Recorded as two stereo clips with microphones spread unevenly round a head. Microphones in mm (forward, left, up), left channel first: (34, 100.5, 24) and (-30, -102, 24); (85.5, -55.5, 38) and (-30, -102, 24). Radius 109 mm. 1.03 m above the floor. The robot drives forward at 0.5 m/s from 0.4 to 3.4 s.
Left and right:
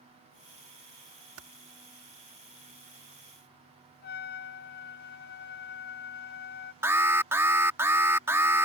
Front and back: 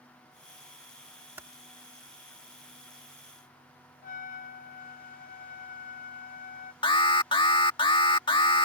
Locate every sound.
1.4 s typing on a keyboard: 80° right; by 1.5 s 85° right
4.0 s a trumpet: 30° left
6.8 s an alarm: 30° right